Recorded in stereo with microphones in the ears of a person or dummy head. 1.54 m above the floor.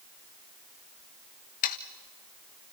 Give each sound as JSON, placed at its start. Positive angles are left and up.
{"t": 1.6, "sound": "sawing", "side_deg": 40, "distance_m": 0.8}